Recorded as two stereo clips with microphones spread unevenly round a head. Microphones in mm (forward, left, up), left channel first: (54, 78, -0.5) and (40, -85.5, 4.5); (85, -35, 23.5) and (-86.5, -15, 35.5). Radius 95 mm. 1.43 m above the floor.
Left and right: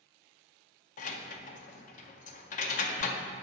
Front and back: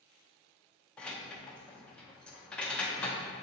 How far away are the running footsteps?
I don't hear running footsteps.